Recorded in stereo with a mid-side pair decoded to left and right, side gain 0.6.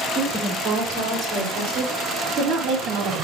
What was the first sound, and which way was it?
A woman speaking, 60° right.